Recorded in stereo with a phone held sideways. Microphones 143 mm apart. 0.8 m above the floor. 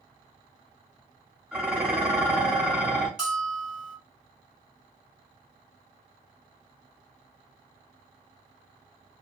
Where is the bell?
5° right (ahead or behind), 1.6 m.